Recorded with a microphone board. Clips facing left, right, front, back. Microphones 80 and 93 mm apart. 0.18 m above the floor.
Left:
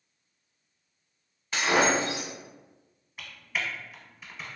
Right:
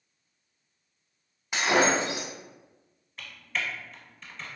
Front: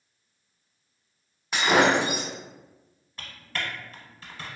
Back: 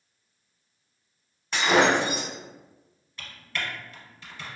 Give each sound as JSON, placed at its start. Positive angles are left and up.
{"t": 1.5, "sound": "breaking glass", "azimuth_deg": -65, "distance_m": 0.9}
{"t": 3.2, "sound": "typing on a keyboard", "azimuth_deg": 15, "distance_m": 0.8}